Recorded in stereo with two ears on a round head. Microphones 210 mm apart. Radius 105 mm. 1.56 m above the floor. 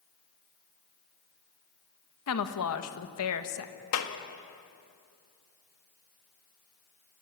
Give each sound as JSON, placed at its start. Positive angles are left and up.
{"t": 2.3, "sound": "a woman speaking", "side_deg": 65, "distance_m": 1.6}
{"t": 3.9, "sound": "a clap", "side_deg": 65, "distance_m": 1.7}